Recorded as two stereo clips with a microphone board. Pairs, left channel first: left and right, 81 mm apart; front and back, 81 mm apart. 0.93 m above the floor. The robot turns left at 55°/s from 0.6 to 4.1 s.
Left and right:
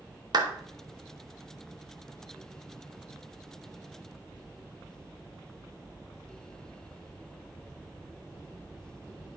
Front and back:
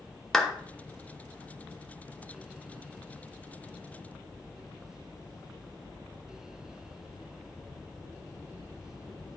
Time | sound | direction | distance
0.3 | a clap | 80° right | 1.0 m